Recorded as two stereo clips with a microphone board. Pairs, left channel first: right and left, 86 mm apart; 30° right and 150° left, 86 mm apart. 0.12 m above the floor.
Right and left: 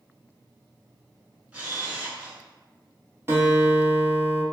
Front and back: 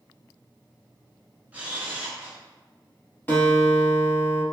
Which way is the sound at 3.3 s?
35° left.